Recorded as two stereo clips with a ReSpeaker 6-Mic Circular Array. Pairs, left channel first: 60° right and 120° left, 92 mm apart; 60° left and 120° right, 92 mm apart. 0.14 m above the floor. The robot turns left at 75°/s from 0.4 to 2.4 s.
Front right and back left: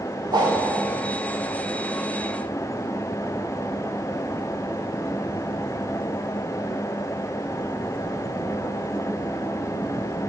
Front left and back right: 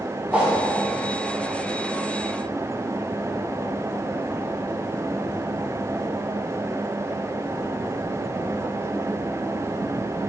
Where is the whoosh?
160° left, 9.5 m; by 0.6 s 150° left, 9.5 m.